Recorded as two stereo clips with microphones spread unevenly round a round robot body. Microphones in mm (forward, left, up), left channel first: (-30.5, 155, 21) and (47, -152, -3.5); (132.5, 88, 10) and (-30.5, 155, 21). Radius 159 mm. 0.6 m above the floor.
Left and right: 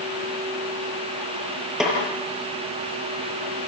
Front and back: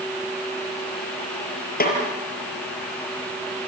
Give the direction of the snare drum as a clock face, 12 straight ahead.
12 o'clock.